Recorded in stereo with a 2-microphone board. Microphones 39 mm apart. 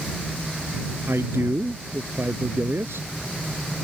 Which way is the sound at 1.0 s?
85° right.